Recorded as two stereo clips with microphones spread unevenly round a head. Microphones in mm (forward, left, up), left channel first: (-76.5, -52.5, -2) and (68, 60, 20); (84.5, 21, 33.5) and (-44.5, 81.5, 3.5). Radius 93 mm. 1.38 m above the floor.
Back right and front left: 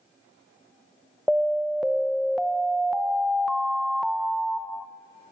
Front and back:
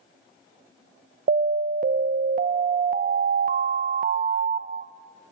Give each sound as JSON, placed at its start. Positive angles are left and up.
{"t": 1.3, "sound": "an alarm", "azimuth_deg": 125, "distance_m": 0.7}